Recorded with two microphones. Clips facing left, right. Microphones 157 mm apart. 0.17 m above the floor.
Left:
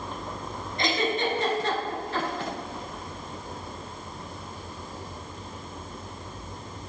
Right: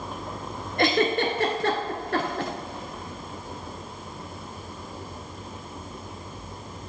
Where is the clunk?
I don't hear a clunk.